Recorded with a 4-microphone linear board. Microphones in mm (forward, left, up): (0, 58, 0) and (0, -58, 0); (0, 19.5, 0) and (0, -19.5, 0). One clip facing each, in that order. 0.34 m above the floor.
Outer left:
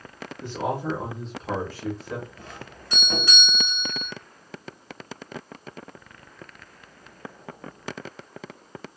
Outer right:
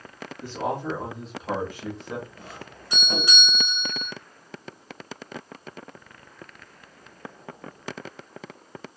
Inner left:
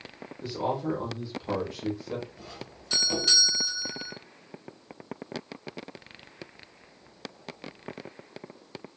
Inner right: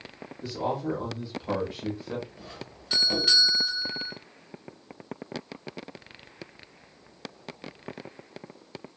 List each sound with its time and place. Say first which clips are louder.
0.4 s a man speaking: outer left 1 dB, even; 20° left (ahead or behind), 0.9 m; by 2.3 s 25° right (ahead or behind), 1.2 m
2.4 s a doorbell: even, inner right 1 dB; 15° right (ahead or behind), 1.8 m